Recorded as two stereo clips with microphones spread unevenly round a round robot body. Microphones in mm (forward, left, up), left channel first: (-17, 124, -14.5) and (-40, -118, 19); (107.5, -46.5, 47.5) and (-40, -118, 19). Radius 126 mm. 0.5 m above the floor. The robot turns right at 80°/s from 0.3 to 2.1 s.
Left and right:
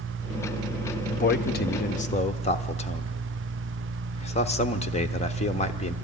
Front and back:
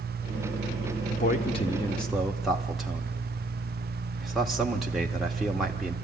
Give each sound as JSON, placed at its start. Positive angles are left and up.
{"t": 1.1, "sound": "a man speaking", "azimuth_deg": 50, "distance_m": 1.2}